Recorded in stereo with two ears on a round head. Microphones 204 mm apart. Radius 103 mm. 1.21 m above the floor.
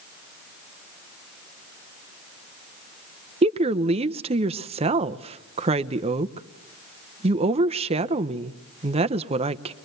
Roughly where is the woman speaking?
Right.